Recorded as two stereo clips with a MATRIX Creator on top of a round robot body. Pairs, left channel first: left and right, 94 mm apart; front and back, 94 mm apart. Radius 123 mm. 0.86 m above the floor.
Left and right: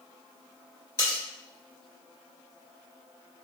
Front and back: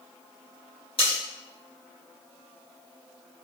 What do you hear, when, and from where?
1.0 s cutlery clinking: 25° left, 1.9 m